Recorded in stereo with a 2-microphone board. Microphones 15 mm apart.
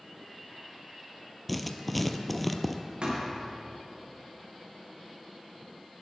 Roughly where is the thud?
Right.